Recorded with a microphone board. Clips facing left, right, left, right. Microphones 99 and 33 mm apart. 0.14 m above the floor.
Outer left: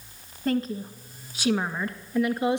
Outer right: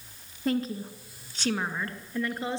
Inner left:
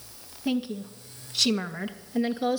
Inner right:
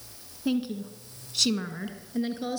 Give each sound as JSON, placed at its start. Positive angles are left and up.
{"t": 0.5, "sound": "a woman speaking", "side_deg": -5, "distance_m": 1.8}